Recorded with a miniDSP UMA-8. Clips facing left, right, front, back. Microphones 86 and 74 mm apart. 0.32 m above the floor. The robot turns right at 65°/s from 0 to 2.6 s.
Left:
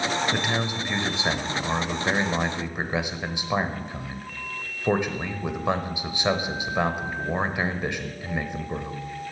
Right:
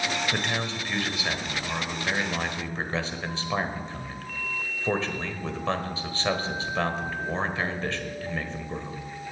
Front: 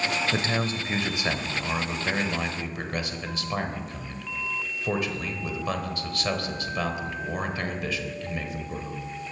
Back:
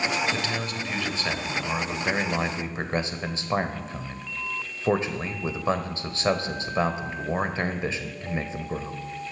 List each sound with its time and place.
0.3 s a man speaking: straight ahead, 1.2 m; by 9.0 s 150° left, 1.2 m